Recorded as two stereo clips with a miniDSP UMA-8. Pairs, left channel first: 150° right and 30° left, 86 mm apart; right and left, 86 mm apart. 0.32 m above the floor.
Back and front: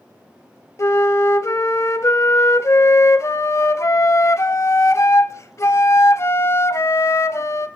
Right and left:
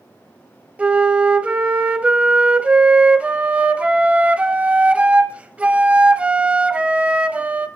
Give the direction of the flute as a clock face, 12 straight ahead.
7 o'clock.